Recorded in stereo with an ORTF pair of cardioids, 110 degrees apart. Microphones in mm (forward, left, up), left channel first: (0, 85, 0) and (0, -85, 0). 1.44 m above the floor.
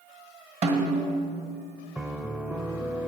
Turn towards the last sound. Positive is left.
turn(degrees=-10)